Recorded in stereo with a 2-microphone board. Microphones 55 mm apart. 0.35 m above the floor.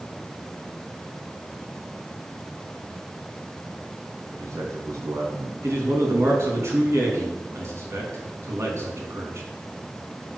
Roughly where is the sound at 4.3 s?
Right.